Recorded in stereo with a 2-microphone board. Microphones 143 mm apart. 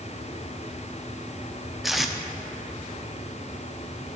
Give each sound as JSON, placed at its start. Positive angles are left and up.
{"t": 1.8, "sound": "tape being pulled", "side_deg": 0, "distance_m": 0.6}